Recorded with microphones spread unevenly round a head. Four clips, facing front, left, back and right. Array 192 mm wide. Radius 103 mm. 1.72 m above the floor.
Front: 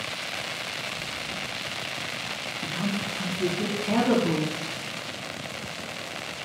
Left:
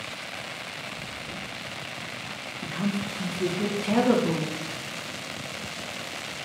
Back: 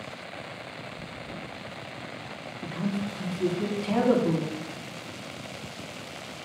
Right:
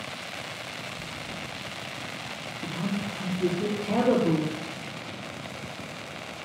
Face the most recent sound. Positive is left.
turn(degrees=80)